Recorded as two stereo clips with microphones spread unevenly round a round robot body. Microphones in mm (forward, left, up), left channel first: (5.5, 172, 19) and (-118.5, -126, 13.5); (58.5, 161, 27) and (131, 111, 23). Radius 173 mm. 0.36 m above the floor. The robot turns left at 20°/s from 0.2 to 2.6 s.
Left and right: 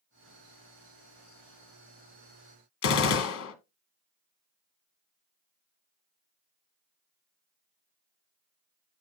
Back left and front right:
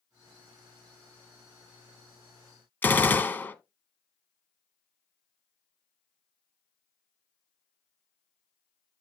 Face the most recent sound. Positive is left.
turn(degrees=80)